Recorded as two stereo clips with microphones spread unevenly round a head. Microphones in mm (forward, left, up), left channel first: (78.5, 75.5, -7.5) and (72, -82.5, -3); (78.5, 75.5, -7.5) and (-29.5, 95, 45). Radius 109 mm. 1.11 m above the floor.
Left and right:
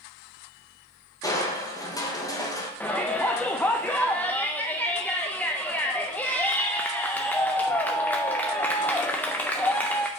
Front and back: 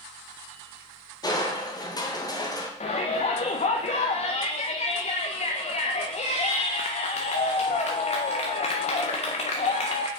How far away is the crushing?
About 1.3 m.